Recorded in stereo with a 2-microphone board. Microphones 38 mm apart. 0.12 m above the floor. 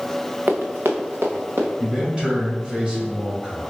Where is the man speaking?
25° right (ahead or behind), 2.0 m.